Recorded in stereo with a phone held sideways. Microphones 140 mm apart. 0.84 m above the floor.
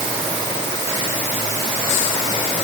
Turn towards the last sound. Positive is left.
No sound to turn to.